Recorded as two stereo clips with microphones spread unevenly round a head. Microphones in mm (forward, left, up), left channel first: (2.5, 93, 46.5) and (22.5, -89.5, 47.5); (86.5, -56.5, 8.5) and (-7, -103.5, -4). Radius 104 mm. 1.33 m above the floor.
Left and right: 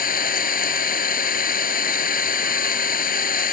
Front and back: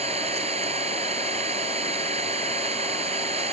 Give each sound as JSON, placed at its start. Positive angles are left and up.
{"t": 0.0, "sound": "an engine running", "azimuth_deg": 145}